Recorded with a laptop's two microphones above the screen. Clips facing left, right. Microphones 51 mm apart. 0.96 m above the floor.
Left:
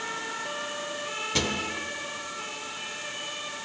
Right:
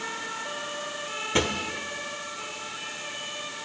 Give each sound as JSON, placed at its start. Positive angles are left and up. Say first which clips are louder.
{"t": 1.4, "sound": "a drawer", "louder": "right 4 dB", "side_deg": -25, "distance_m": 1.1}